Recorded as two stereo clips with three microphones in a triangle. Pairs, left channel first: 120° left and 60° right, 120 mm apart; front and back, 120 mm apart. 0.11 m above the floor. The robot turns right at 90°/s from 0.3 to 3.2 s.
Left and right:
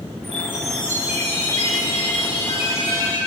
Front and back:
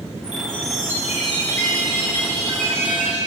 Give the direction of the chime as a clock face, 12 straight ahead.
2 o'clock.